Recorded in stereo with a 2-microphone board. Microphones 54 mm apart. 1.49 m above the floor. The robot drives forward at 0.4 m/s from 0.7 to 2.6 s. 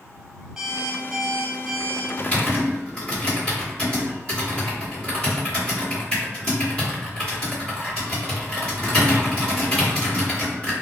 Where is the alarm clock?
Centre (ahead or behind), 1.3 m.